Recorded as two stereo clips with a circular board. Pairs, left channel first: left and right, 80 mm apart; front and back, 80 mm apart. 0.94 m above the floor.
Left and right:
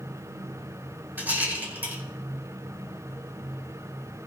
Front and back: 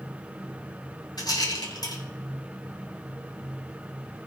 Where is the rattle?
25° right, 4.5 m.